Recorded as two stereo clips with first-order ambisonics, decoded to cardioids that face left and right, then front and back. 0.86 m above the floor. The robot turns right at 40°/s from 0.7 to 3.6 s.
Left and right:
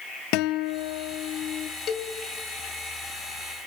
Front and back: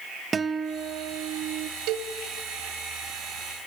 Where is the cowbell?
150° left, 1.7 m; by 2.1 s 160° left, 1.7 m.